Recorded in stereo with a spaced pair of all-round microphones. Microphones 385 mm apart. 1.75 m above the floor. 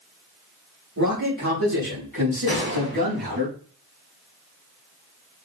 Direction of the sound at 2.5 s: 30° right (ahead or behind).